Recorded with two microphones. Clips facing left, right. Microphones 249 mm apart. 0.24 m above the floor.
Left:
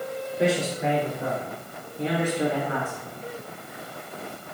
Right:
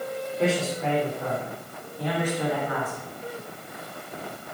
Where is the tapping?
No tapping in this recording.